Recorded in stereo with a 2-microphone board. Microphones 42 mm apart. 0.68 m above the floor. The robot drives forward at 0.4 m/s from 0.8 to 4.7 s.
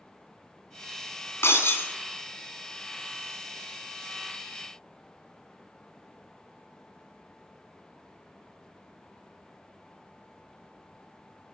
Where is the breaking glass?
80° left, 3.5 m.